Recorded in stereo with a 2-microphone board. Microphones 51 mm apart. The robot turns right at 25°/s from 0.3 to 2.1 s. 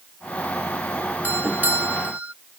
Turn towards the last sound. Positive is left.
turn(degrees=-30)  # may be behind; listen again after turning